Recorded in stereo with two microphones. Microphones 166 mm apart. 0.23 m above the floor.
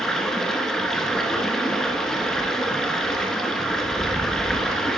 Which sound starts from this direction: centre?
Running water, at 0.0 s.